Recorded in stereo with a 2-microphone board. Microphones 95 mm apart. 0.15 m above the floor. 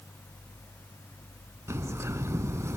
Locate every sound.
1.7 s a bird: 30° right (ahead or behind), 0.5 m